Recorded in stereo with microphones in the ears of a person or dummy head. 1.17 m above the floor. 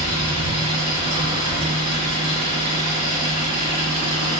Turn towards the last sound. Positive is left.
turn(degrees=-45)  # may be behind; listen again after turning